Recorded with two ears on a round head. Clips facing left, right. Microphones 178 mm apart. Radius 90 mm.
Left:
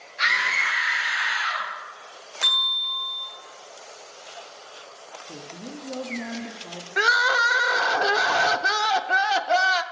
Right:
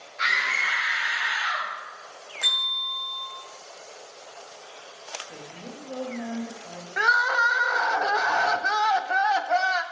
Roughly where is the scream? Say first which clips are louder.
Left 2 dB; left.